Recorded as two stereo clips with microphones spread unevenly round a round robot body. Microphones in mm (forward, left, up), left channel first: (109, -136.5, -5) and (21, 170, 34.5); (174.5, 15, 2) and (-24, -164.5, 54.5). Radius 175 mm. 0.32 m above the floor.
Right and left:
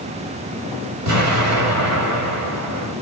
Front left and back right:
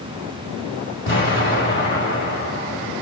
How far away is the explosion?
About 1.7 m.